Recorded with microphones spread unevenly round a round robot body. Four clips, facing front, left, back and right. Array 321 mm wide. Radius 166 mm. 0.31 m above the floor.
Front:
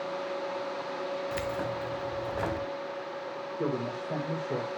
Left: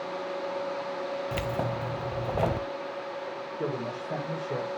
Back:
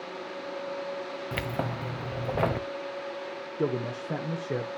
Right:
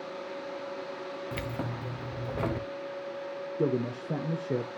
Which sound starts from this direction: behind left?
Keys jangling, at 1.3 s.